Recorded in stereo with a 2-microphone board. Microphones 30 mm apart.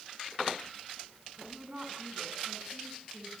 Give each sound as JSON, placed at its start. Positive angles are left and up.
{"t": 1.4, "sound": "a woman speaking", "side_deg": -35, "distance_m": 7.5}